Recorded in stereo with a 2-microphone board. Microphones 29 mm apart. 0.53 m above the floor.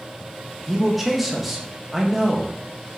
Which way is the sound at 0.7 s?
5° right (ahead or behind).